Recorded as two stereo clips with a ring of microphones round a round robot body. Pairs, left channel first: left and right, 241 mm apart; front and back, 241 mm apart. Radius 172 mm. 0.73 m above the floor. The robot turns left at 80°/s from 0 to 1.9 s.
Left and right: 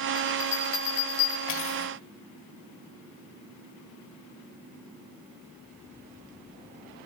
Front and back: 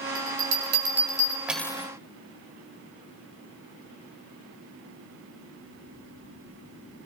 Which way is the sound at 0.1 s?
160° right.